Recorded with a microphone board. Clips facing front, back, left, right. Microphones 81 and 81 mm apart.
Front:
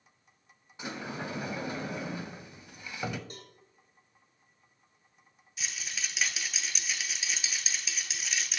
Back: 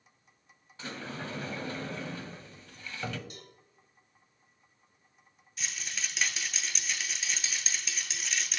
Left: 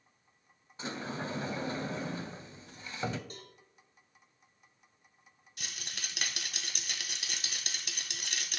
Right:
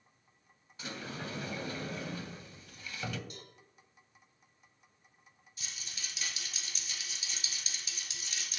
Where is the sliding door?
60° left, 0.6 m.